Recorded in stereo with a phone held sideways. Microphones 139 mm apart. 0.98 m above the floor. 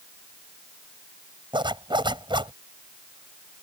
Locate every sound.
1.5 s a zipper: 35° right (ahead or behind)